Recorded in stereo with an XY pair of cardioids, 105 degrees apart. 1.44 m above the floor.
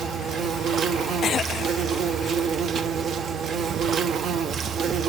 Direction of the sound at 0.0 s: 60° right.